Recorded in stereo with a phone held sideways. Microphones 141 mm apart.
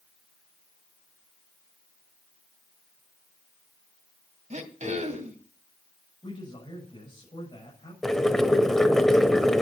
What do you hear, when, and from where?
4.5 s throat clearing: 55° right (ahead or behind), 2.5 m
6.2 s a man speaking: 35° left (ahead or behind), 6.5 m
8.0 s boiling: 5° left (ahead or behind), 1.6 m